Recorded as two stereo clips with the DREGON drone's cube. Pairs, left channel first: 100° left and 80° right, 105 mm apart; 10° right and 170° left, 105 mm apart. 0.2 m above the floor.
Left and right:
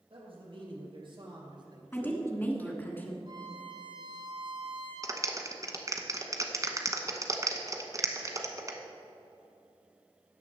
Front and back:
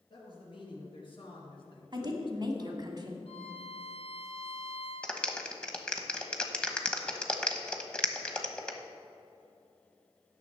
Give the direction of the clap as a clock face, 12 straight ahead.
3 o'clock.